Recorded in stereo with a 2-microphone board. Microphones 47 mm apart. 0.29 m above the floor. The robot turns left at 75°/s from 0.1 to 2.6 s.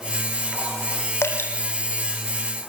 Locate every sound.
1.2 s dripping: 75° left (ahead or behind), 3 m; by 1.5 s 50° left (ahead or behind), 3 m